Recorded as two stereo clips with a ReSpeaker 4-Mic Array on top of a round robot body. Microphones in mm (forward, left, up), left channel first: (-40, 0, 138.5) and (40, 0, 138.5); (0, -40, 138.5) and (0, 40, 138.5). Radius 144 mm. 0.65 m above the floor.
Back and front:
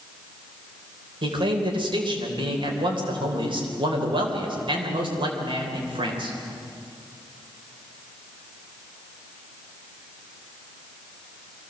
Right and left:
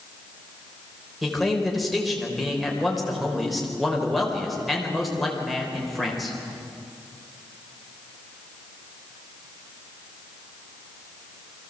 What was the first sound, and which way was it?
A man speaking, straight ahead.